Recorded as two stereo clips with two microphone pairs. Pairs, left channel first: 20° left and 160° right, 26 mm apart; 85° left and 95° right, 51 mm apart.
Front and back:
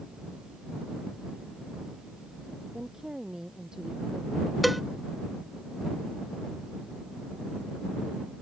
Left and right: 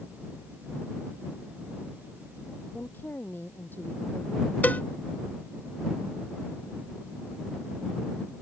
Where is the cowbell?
110° left.